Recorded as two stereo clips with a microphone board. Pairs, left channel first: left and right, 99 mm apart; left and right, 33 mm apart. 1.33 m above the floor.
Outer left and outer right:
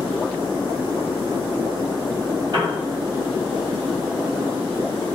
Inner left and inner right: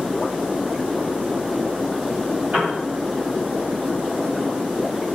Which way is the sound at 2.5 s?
50° right (ahead or behind).